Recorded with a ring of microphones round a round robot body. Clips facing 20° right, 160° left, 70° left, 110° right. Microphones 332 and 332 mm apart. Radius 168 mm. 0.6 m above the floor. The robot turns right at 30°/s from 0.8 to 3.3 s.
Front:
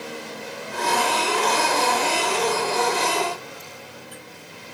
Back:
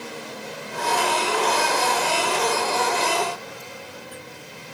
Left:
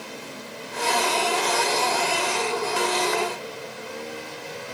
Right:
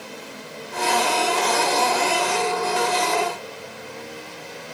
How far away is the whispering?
No whispering in this recording.